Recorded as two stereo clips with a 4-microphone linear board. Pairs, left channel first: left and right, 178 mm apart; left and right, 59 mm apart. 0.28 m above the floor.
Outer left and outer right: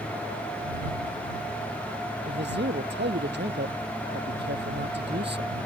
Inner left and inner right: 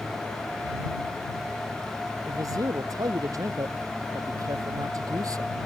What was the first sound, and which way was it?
A man speaking, 75° right (ahead or behind).